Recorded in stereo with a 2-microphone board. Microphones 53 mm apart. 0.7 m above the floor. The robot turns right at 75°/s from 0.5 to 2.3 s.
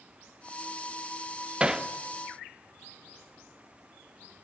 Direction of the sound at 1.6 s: 20° right (ahead or behind).